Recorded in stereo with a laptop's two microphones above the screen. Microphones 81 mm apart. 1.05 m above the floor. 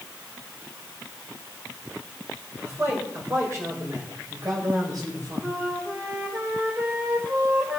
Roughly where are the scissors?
I don't hear scissors.